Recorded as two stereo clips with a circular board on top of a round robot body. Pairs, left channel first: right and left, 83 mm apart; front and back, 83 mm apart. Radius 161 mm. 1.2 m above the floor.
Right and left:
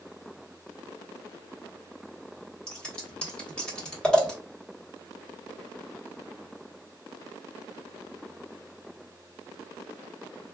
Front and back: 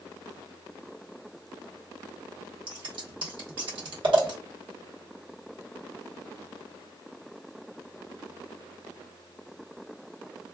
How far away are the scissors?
About 1.2 m.